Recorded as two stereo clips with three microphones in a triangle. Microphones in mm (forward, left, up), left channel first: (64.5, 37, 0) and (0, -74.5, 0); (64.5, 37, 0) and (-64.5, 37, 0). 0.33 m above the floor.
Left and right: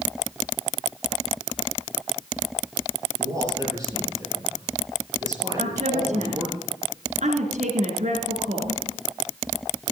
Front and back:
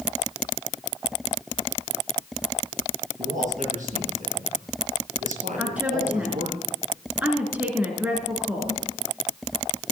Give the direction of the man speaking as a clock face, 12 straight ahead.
6 o'clock.